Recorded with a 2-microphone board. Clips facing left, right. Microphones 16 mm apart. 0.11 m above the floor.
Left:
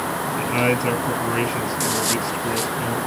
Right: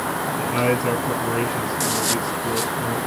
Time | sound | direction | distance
0.4 | a man speaking | 15° left (ahead or behind) | 1.5 m